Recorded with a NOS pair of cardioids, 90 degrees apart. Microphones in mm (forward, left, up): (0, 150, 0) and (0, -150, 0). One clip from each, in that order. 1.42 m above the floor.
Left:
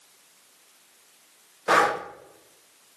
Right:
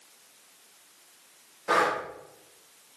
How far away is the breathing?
About 0.6 m.